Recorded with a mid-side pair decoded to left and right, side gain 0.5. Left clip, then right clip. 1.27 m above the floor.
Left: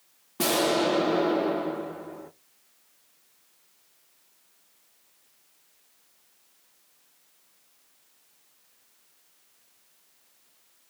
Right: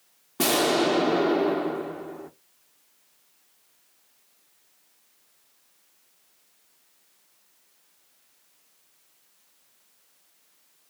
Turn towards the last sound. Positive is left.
turn(degrees=-20)